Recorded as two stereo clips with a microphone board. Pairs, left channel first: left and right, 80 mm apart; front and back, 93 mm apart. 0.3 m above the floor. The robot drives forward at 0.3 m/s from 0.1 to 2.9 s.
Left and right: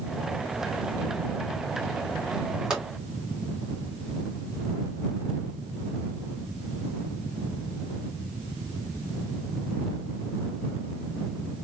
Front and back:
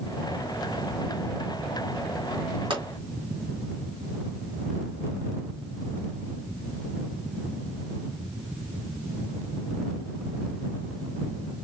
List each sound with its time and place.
2.7 s a pop: 170° right, 3 m